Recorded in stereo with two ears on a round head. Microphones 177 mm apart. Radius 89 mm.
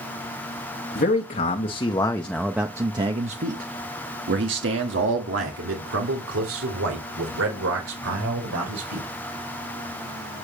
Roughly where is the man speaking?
Left.